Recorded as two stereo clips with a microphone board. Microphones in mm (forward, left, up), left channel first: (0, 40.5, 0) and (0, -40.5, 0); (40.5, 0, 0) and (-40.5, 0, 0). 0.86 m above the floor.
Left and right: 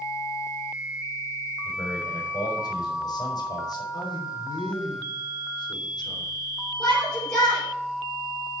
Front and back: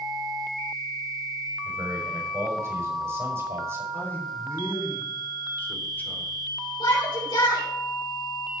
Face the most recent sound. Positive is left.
turn(degrees=15)